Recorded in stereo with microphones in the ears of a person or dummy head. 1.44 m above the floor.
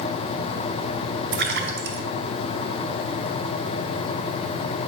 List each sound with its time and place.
1.3 s a splash: 65° right (ahead or behind), 2 m